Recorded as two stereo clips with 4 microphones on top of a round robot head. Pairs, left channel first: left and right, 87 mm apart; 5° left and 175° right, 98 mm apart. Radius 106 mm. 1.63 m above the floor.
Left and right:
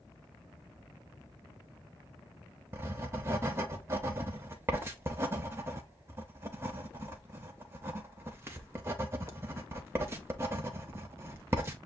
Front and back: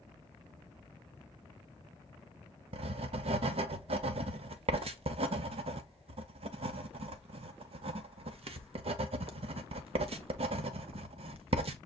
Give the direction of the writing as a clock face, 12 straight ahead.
5 o'clock.